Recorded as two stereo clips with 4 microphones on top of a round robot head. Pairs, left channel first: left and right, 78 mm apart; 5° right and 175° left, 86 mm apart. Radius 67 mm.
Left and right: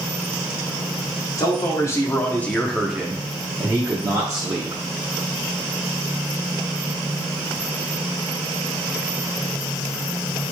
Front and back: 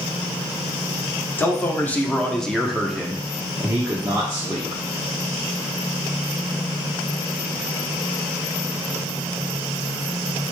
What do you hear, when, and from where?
1.4 s a man speaking: 55° left, 1.0 m; by 4.8 s 130° right, 1.2 m